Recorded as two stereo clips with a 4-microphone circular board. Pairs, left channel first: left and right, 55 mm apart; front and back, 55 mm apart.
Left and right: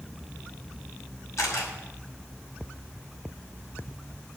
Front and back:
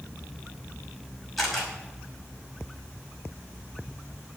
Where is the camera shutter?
85° left, 5.5 m.